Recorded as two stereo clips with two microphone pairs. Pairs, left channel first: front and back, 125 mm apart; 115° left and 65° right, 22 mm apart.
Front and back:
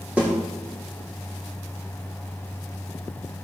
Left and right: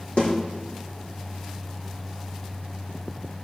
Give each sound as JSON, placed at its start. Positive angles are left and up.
{"t": 0.2, "sound": "a snare drum", "azimuth_deg": 105, "distance_m": 6.0}